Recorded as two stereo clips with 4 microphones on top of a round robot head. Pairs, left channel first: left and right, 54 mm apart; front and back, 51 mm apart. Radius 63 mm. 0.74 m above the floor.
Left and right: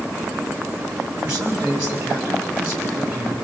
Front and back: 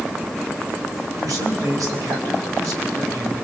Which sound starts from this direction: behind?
A man speaking, at 1.2 s.